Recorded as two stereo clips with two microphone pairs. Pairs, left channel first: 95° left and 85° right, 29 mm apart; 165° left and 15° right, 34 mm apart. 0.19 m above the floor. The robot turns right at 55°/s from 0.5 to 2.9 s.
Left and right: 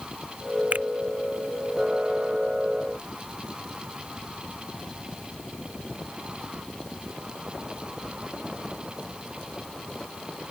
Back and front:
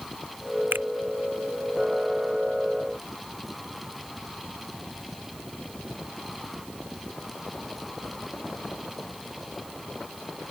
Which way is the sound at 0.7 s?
45° right.